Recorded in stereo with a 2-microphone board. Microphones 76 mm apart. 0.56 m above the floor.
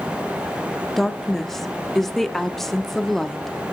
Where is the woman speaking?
5° left (ahead or behind), 0.7 m.